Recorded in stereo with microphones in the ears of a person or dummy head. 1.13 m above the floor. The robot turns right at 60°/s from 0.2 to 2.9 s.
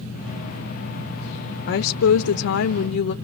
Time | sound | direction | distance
1.7 | a woman speaking | 50° left | 0.7 m